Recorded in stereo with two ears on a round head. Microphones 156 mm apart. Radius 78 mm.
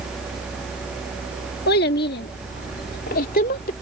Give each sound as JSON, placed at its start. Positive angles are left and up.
{"t": 1.7, "sound": "a child speaking", "side_deg": 60}